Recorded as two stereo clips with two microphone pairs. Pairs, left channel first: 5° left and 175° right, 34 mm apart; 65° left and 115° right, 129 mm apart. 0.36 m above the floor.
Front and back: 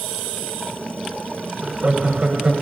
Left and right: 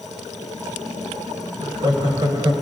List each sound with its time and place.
1.6 s laughter: 140° right, 1.9 m